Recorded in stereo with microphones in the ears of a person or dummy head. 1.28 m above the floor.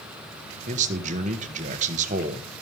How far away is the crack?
No crack in this recording.